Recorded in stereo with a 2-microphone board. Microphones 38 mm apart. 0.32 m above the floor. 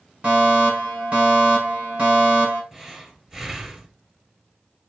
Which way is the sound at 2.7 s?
20° right (ahead or behind).